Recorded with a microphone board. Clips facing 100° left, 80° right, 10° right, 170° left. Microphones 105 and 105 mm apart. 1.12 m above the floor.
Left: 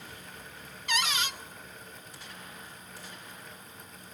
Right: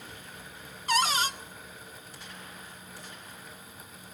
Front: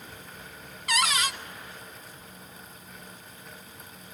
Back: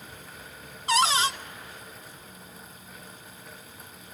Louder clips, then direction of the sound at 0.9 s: Right 5 dB, back 4 dB; 130° right.